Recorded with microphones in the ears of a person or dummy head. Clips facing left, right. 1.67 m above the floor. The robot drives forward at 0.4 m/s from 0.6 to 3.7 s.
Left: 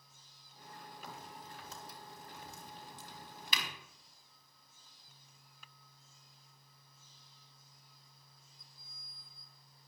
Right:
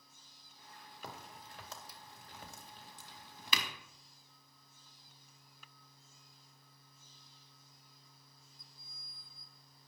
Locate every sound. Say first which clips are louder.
1.0 s a crack: right 2 dB; 60° right (ahead or behind), 3 m; by 3.7 s 80° right, 2.5 m